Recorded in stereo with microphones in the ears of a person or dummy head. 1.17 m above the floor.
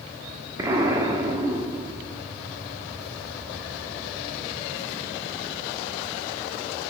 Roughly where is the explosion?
Right.